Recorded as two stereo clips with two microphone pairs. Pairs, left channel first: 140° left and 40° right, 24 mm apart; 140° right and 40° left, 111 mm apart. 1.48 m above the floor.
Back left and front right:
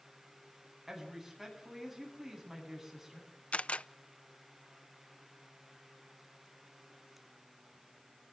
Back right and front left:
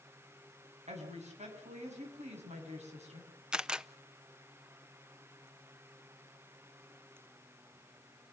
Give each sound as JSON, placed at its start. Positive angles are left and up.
{"t": 0.9, "sound": "a woman speaking", "azimuth_deg": 30, "distance_m": 9.5}
{"t": 3.5, "sound": "a camera shutter", "azimuth_deg": 120, "distance_m": 0.7}